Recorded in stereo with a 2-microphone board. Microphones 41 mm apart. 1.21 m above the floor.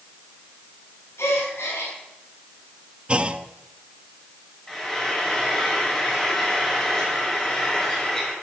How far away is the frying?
About 6 m.